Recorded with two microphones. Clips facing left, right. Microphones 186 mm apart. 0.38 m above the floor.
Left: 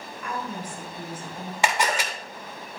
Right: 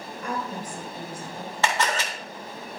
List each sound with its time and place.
0.2 s a woman speaking: 45° right (ahead or behind), 2 m; by 1.5 s 50° right (ahead or behind), 3 m
1.6 s a camera shutter: 15° left (ahead or behind), 1.3 m